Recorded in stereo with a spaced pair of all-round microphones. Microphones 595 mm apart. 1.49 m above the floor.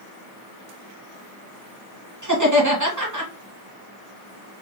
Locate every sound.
2.2 s laughter: 30° right (ahead or behind), 1.3 m